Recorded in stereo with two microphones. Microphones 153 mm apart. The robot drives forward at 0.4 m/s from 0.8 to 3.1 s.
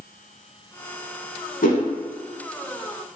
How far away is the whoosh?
About 0.9 m.